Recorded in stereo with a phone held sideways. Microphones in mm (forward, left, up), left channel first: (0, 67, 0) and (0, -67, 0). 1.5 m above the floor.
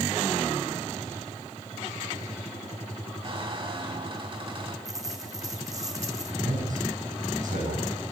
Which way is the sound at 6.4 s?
80° right.